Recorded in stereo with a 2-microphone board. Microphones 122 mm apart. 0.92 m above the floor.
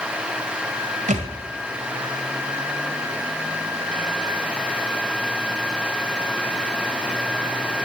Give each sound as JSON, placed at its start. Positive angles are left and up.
{"t": 1.1, "sound": "a thud", "side_deg": -80, "distance_m": 1.8}